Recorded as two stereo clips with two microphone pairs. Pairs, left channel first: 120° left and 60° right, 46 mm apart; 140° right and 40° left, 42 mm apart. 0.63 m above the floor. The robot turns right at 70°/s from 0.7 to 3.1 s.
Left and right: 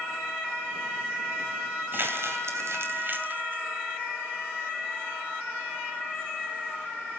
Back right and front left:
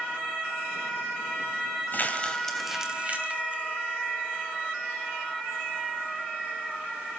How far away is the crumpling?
About 2.5 m.